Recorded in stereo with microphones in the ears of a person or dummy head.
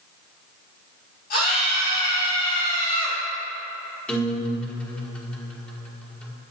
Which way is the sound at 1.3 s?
50° left (ahead or behind).